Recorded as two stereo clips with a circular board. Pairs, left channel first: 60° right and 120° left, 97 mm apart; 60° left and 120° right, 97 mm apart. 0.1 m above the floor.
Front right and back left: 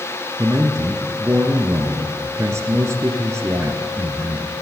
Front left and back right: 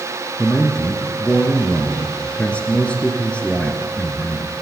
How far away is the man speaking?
About 1.2 m.